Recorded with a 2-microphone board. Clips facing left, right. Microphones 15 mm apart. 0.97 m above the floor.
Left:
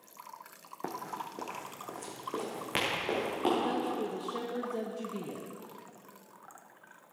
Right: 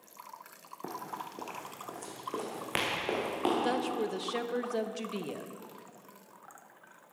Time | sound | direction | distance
0.8 | running footsteps | 30° left (ahead or behind) | 2 m
3.6 | a woman speaking | 60° right (ahead or behind) | 0.8 m